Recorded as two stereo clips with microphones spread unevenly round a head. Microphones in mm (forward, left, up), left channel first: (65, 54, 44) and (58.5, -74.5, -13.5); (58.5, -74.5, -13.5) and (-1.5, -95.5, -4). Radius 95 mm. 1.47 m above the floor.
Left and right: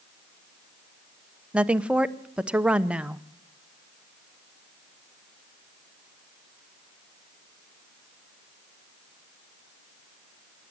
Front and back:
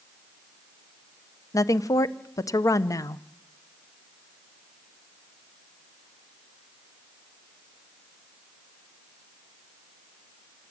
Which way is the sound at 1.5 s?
15° right.